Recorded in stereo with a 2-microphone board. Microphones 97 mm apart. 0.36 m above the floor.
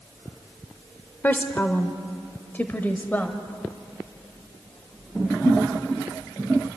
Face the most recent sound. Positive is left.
turn(degrees=20)  # may be behind; listen again after turning